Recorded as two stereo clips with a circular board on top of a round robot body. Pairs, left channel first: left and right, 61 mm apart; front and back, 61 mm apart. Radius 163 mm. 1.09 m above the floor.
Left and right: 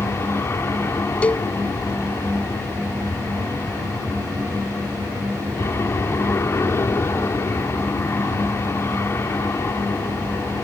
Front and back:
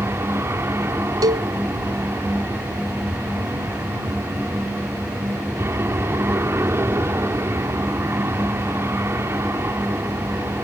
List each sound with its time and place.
0.0 s an aircraft: 135° left
1.2 s a cowbell: 160° left